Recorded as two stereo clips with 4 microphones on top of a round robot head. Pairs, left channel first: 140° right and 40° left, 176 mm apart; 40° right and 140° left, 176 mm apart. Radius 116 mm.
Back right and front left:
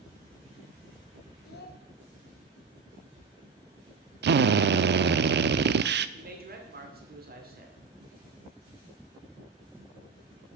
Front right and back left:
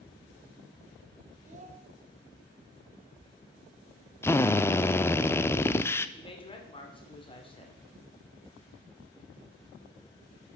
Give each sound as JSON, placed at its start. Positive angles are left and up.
{"t": 1.4, "sound": "a child speaking", "azimuth_deg": -170, "distance_m": 1.8}
{"t": 4.2, "sound": "a drill", "azimuth_deg": 40, "distance_m": 0.5}
{"t": 6.2, "sound": "a man speaking", "azimuth_deg": 20, "distance_m": 2.5}